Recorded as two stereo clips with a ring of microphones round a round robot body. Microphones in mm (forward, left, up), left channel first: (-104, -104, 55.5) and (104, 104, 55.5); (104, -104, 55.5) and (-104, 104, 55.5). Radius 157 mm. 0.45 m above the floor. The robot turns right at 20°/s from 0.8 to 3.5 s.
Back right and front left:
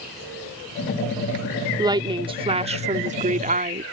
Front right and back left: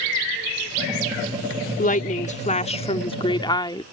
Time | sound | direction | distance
1.8 | a woman speaking | 20° right | ?